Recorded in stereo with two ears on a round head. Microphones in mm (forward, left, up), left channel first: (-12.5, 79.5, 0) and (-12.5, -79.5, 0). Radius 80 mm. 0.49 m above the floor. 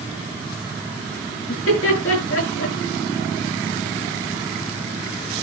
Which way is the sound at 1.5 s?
80° left.